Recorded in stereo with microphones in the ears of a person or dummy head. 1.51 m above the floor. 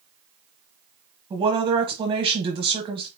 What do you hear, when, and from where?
1.3 s a woman speaking: 25° right (ahead or behind), 1.3 m